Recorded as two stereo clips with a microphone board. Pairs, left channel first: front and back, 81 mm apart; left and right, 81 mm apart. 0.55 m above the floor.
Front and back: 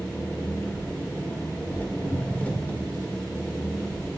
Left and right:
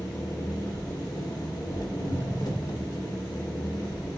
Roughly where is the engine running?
Left.